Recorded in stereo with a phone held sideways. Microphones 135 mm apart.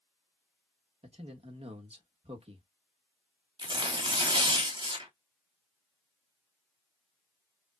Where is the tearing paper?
35° right (ahead or behind), 1.0 m.